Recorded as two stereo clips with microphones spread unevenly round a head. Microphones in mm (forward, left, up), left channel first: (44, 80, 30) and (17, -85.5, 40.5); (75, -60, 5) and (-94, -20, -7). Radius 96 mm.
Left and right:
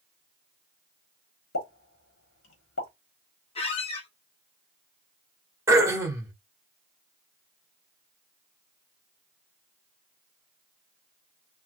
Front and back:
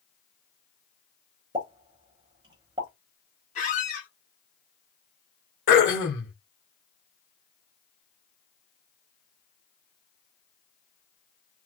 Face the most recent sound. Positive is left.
turn(degrees=-25)